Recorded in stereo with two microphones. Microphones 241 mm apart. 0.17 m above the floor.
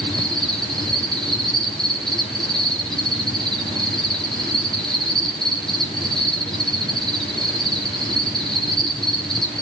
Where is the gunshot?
I don't hear a gunshot.